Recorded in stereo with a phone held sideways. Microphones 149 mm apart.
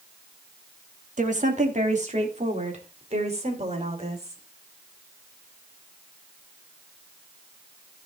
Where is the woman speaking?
55° right (ahead or behind), 1.9 m; by 4.4 s 45° right (ahead or behind), 4.5 m.